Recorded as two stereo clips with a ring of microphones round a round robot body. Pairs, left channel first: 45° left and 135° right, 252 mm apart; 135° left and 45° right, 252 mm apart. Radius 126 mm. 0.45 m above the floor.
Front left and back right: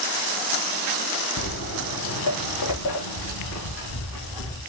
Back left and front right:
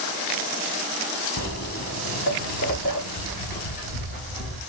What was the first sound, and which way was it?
Footsteps, 85° left.